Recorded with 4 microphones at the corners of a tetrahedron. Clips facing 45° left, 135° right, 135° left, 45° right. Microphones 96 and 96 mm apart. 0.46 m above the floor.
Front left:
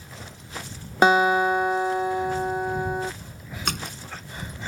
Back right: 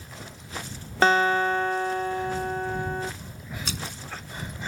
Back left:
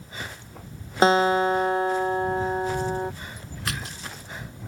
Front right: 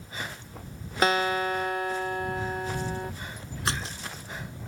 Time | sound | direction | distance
1.0 | a guitar | 110° left | ?
3.7 | a splash | 15° left | ?